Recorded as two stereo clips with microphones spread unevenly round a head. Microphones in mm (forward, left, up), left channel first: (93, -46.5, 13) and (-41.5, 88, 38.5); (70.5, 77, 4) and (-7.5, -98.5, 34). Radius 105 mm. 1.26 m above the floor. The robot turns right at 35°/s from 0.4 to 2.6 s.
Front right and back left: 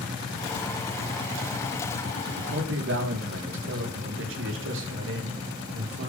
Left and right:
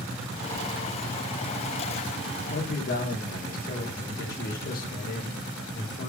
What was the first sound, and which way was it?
A man speaking, 110° left.